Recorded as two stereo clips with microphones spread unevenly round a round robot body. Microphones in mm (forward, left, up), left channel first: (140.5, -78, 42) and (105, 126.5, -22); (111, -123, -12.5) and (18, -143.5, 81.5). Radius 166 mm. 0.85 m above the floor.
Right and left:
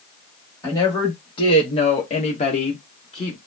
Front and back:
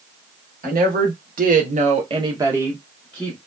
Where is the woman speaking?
170° right, 1.1 m; by 3.4 s 5° right, 1.1 m.